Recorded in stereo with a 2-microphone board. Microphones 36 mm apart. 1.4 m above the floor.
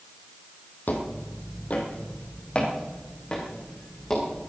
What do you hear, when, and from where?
0.9 s footsteps: 55° left (ahead or behind), 3 m; by 4.5 s 15° left (ahead or behind), 6 m